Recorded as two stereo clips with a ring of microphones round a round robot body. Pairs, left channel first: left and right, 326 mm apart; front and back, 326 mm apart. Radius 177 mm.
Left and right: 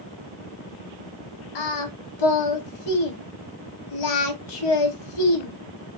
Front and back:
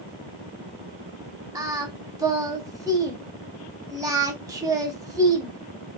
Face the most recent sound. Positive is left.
turn(degrees=100)